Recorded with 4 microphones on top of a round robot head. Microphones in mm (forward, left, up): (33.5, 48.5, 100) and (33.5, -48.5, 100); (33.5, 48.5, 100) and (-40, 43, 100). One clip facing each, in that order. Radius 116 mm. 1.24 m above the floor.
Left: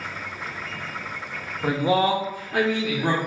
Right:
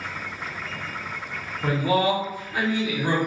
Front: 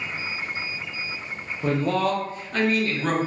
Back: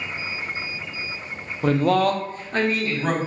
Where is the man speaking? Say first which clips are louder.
Left 1 dB, back 4 dB; 175° left, 0.5 m; by 3.2 s 110° left, 1.0 m.